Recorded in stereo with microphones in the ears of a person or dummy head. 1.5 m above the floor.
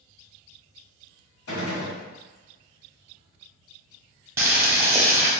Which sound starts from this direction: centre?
Boiling, at 4.4 s.